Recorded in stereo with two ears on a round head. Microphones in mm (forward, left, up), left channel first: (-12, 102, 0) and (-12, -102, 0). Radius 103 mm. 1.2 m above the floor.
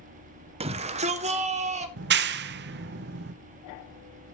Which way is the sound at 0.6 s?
25° right (ahead or behind).